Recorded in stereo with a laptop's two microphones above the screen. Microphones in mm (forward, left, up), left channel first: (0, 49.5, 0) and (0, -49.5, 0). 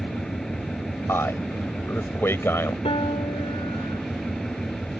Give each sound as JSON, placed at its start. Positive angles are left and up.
{"t": 0.0, "sound": "an engine running", "side_deg": 5}
{"t": 1.1, "sound": "a man speaking", "side_deg": 25}
{"t": 2.9, "sound": "a piano", "side_deg": 70}